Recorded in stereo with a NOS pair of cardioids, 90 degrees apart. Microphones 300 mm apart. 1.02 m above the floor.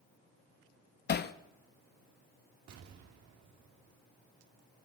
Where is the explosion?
60° right, 1.4 m.